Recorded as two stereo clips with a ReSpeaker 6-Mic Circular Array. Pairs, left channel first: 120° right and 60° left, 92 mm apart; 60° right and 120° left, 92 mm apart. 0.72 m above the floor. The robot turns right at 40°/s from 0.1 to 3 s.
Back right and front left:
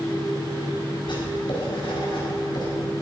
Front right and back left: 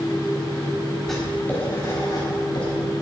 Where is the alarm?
I don't hear an alarm.